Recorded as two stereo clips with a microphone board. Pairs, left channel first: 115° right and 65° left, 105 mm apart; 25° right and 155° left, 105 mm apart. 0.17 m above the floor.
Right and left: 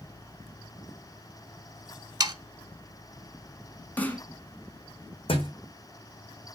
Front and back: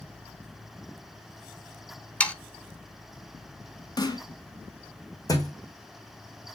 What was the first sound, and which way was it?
Sawing, 50° left.